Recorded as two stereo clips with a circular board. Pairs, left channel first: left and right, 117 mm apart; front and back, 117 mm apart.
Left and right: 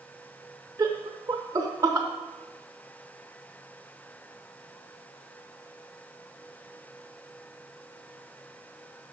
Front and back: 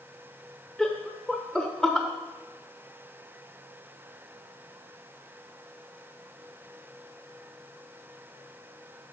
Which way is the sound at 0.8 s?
80° right.